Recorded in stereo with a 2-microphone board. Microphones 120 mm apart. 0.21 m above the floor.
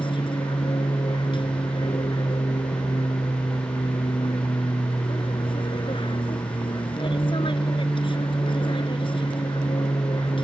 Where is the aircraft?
40° left (ahead or behind).